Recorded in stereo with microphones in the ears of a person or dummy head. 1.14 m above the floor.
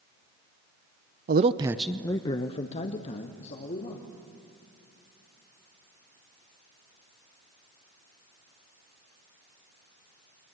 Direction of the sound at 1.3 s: 45° right (ahead or behind).